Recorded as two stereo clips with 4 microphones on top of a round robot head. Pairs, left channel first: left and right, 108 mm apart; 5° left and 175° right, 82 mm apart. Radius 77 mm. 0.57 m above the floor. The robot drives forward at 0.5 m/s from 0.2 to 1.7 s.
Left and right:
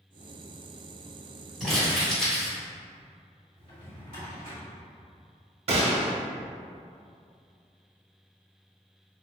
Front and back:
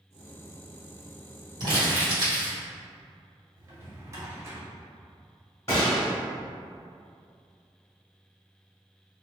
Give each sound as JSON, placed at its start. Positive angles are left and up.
{"t": 1.6, "sound": "crumpling", "azimuth_deg": -175, "distance_m": 1.9}
{"t": 3.6, "sound": "a drawer", "azimuth_deg": 135, "distance_m": 1.6}
{"t": 5.7, "sound": "a gunshot", "azimuth_deg": -65, "distance_m": 0.8}